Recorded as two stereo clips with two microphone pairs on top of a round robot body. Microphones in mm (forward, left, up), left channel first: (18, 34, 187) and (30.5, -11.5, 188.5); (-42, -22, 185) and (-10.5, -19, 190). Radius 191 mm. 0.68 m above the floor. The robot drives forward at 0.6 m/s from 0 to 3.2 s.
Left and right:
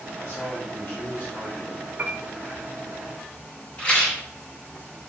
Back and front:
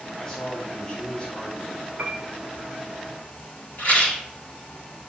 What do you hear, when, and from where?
0.2 s a man speaking: 110° left, 2 m; by 1.9 s 135° left, 2.5 m
2.0 s a piano: 25° right, 0.8 m; by 2.2 s 30° right, 0.7 m
3.8 s a rattle: 160° left, 4 m